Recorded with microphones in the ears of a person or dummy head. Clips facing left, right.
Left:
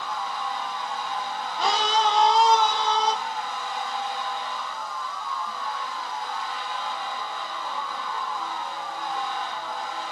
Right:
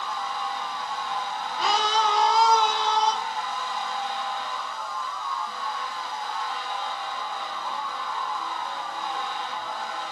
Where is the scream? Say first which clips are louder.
Left 1 dB; 30° left (ahead or behind), 2 m; by 3.1 s 25° left (ahead or behind), 3 m.